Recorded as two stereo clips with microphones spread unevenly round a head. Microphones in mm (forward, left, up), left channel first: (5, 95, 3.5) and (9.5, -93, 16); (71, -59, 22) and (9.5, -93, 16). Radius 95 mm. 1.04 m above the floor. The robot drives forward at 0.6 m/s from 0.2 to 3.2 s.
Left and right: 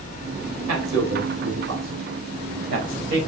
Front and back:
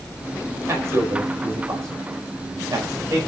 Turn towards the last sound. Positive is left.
turn(degrees=-120)